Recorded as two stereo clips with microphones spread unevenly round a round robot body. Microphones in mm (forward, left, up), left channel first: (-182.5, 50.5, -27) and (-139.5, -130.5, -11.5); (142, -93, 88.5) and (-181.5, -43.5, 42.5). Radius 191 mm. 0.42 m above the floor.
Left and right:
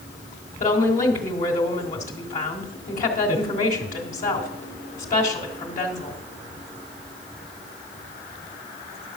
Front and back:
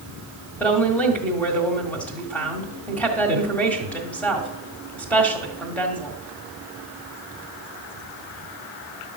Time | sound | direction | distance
0.6 | a woman speaking | 85° left | 1.7 m